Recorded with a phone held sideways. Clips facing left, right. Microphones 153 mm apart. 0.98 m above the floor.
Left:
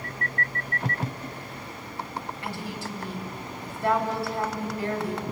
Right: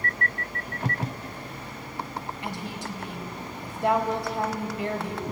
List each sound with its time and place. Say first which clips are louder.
2.4 s a woman speaking: even; 20° right (ahead or behind), 4.5 m